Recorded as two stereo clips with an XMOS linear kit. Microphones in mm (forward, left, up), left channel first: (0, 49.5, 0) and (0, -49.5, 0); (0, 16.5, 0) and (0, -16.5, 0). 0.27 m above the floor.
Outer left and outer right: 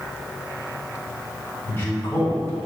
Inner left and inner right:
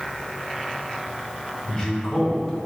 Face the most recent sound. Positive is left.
turn(degrees=25)  # may be behind; listen again after turning